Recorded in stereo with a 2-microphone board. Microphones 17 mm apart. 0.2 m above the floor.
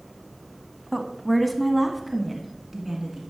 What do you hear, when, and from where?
0.9 s a woman speaking: 15° left (ahead or behind), 1.2 m; by 3.2 s 20° right (ahead or behind), 2 m